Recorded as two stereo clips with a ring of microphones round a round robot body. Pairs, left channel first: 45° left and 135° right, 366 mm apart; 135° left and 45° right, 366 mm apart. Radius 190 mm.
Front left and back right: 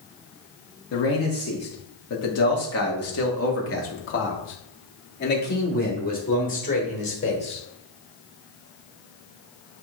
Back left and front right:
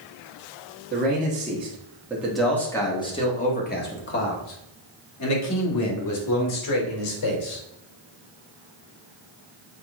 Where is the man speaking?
10° left, 1.7 m; by 7.6 s 115° left, 3 m.